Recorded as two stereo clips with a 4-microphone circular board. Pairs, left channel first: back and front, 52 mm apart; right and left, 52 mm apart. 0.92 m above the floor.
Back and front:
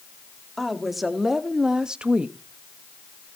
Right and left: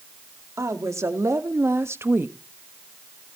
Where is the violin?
I don't hear a violin.